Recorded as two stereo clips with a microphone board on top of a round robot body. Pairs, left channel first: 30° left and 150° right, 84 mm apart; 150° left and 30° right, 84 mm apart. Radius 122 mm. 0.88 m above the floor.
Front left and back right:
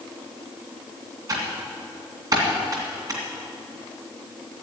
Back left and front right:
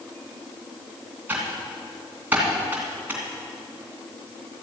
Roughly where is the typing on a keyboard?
Right.